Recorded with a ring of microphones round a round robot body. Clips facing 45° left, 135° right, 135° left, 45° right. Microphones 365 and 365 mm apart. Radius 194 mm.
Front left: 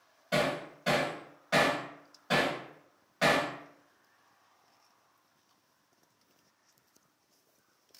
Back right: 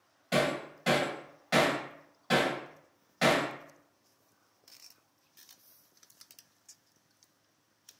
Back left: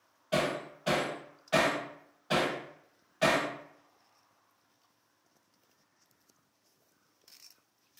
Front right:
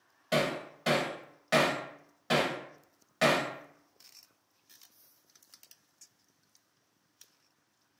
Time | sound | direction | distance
0.3 | hammering | 60° right | 1.2 m